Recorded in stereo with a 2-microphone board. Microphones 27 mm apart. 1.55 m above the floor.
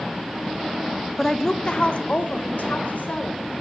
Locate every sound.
1.2 s a woman speaking: 5° left (ahead or behind), 0.5 m; by 3.5 s 65° left (ahead or behind), 1.6 m